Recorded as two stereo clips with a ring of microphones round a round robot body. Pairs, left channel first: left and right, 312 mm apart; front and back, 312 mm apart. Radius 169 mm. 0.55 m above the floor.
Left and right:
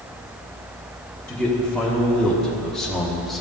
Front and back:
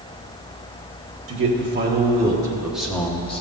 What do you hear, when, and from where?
1.3 s a man speaking: 175° left, 1.6 m; by 3.4 s straight ahead, 1.3 m